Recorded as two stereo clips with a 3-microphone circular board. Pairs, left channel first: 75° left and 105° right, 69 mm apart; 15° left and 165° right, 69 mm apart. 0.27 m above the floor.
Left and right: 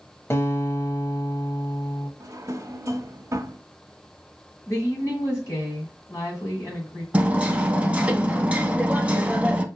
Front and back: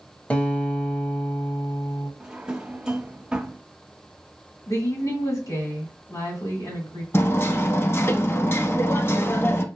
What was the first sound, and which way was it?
A guitar, 70° left.